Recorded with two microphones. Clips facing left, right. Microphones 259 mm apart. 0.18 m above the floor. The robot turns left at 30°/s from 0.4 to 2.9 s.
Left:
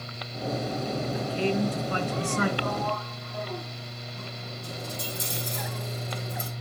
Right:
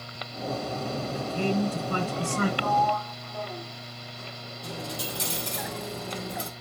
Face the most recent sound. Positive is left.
turn(degrees=-80)